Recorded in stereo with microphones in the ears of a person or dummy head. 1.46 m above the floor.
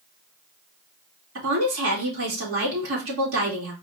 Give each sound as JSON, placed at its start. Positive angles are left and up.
{"t": 1.4, "sound": "a woman speaking", "side_deg": -85, "distance_m": 2.5}